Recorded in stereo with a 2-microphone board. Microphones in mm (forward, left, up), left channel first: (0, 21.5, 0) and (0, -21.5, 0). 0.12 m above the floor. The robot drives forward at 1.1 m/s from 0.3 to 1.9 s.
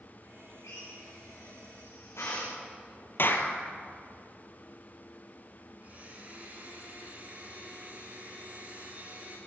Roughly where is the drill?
Left.